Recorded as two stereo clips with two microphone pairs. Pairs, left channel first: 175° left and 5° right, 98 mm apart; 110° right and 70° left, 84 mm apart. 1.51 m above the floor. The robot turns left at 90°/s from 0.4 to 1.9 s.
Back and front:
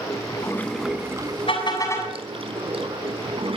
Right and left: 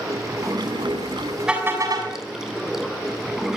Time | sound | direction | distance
0.0 | running water | 120° left | 4 m
1.5 | a car horn | 155° left | 7 m